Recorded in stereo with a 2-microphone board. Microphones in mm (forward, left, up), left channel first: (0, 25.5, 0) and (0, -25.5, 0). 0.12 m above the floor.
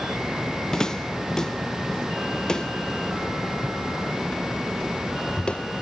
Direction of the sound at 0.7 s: 10° left (ahead or behind).